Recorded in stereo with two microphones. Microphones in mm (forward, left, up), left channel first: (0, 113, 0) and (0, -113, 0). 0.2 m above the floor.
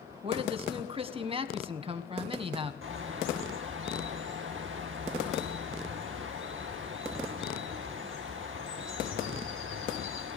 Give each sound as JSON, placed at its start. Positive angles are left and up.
{"t": 0.2, "sound": "a man speaking", "side_deg": -25, "distance_m": 1.4}
{"t": 2.8, "sound": "a bird", "side_deg": -60, "distance_m": 2.5}